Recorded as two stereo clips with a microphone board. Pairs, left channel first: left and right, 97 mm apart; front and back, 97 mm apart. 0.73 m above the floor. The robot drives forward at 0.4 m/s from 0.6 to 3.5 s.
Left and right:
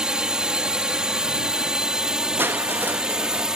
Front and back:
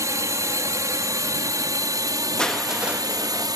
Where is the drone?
165° right; by 3.6 s 170° right.